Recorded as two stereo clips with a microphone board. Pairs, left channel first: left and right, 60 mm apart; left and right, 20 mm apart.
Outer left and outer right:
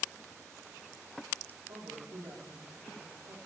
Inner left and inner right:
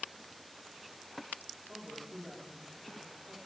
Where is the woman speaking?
85° right, 4 m.